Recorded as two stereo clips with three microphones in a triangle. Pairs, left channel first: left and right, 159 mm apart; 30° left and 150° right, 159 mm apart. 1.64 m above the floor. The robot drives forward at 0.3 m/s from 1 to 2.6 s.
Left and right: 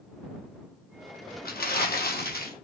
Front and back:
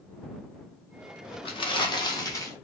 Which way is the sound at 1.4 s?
85° left.